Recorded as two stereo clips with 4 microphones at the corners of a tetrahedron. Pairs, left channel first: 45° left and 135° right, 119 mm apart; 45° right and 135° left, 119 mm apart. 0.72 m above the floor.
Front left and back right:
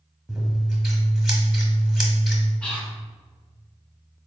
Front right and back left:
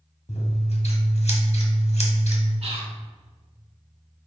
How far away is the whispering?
About 0.9 m.